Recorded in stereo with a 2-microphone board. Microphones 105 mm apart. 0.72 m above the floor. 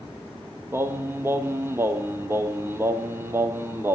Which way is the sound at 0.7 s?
25° right (ahead or behind).